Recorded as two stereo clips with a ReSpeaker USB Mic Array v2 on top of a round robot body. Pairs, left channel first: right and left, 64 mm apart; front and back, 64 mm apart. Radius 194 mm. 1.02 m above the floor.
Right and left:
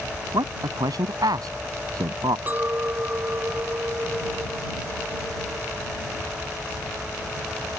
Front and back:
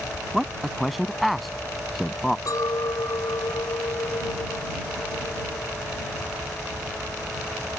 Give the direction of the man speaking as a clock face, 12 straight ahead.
9 o'clock.